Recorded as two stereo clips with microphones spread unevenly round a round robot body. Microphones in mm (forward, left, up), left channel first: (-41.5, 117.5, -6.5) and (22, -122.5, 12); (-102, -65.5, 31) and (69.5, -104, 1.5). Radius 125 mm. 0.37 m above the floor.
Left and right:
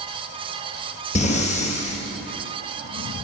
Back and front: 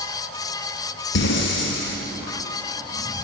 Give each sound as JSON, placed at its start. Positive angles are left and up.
{"t": 1.1, "sound": "breathing", "azimuth_deg": 170, "distance_m": 2.0}